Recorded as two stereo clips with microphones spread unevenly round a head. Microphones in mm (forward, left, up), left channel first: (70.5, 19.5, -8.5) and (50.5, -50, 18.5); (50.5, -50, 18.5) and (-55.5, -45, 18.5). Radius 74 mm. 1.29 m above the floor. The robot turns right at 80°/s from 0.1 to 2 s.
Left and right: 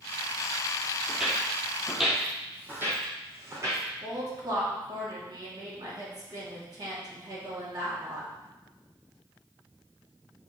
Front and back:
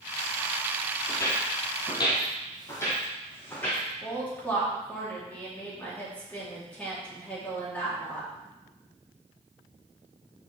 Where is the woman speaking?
80° right, 3 m.